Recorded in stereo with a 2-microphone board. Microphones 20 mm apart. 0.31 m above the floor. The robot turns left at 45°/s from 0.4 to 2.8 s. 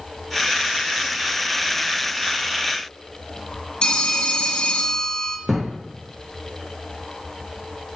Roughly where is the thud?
Right.